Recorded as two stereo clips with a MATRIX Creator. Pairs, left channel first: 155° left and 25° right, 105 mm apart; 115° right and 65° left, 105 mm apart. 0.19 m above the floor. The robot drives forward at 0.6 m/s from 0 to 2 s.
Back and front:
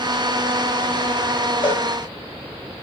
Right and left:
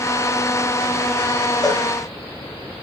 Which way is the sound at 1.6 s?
160° right.